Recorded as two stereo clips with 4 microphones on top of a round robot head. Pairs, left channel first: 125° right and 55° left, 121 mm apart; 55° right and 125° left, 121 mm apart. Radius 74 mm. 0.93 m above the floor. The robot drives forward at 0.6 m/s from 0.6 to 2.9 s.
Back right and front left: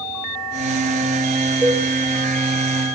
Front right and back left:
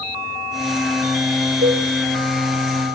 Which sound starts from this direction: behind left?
A cowbell, at 1.6 s.